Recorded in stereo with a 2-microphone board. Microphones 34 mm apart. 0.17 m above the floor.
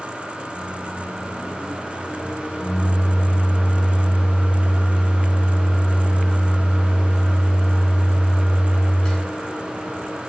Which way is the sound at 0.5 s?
25° left (ahead or behind).